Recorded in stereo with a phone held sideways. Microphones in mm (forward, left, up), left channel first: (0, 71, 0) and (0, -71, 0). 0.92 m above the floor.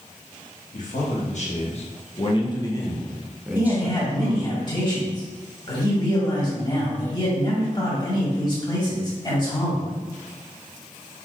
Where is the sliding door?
I don't hear a sliding door.